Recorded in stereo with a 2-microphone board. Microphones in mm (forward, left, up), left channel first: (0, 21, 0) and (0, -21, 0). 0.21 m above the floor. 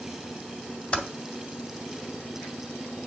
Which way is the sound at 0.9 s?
25° left (ahead or behind).